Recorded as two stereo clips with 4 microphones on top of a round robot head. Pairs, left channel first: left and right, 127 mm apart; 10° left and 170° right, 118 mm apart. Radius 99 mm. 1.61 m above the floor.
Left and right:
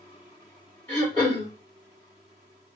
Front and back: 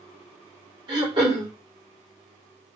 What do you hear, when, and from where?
0.9 s throat clearing: 155° left, 1.6 m